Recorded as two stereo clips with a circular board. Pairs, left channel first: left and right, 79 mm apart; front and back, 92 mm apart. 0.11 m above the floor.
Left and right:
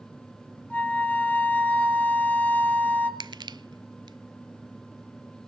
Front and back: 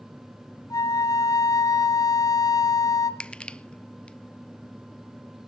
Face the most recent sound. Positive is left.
turn(degrees=-75)